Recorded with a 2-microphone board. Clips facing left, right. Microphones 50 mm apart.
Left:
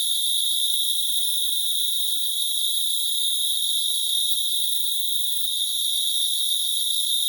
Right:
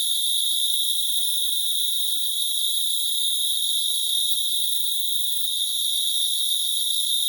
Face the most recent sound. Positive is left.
turn(degrees=0)  # may be behind; listen again after turning